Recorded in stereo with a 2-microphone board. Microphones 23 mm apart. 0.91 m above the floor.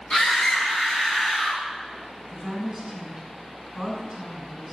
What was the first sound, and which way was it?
A scream, 40° left (ahead or behind).